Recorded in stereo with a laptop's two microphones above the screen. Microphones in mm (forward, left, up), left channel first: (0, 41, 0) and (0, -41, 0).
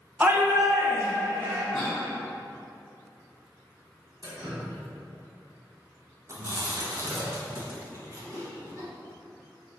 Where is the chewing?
40° right (ahead or behind), 0.8 m.